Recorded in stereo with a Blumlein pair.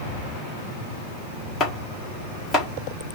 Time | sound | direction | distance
1.6 | chopping | 20° left | 2.0 m